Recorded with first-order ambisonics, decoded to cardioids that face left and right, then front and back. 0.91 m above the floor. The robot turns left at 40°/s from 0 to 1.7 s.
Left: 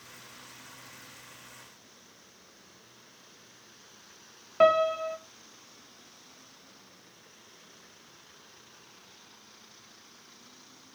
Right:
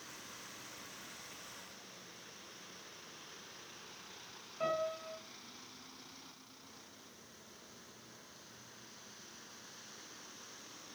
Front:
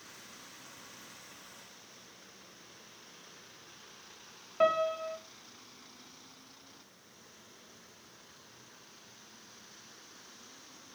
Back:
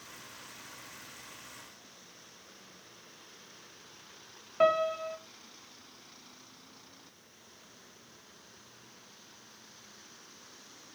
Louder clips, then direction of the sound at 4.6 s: Left 15 dB, back 2 dB; 95° left.